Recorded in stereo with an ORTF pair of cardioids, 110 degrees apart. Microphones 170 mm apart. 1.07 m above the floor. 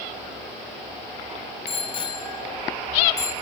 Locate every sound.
1.7 s a bicycle bell: 35° left, 4.5 m; by 3.3 s 20° left, 6 m